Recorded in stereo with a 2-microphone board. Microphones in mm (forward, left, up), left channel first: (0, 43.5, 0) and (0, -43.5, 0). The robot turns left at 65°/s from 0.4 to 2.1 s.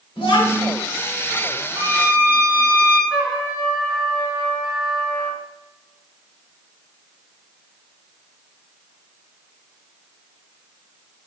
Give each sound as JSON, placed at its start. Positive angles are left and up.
{"t": 0.2, "sound": "a child speaking", "side_deg": 90, "distance_m": 1.9}
{"t": 1.8, "sound": "a violin", "side_deg": -30, "distance_m": 0.6}
{"t": 3.1, "sound": "a trumpet", "side_deg": 10, "distance_m": 1.6}